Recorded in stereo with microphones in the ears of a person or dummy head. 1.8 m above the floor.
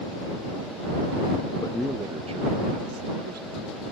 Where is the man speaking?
25° left (ahead or behind); by 3.8 s 60° right (ahead or behind).